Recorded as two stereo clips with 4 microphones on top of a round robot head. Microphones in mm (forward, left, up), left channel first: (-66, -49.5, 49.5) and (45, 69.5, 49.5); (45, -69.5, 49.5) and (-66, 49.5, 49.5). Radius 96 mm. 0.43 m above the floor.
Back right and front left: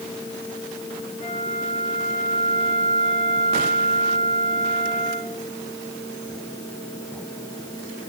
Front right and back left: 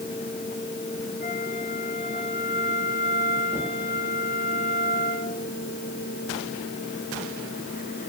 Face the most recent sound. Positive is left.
turn(degrees=-80)